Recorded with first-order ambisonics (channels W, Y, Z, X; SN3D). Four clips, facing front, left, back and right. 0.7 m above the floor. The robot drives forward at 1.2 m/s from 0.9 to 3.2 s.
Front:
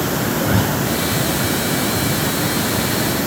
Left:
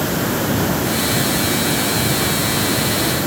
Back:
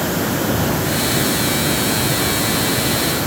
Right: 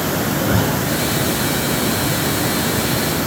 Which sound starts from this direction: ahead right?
A zipper, at 0.3 s.